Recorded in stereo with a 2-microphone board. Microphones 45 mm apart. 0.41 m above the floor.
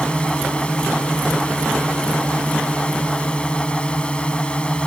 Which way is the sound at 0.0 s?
25° left (ahead or behind).